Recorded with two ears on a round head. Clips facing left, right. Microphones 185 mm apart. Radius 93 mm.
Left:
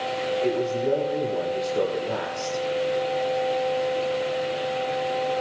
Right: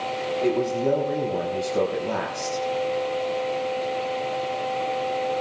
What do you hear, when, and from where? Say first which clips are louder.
0.4 s a man speaking: right 3 dB; 70° right (ahead or behind), 3.5 m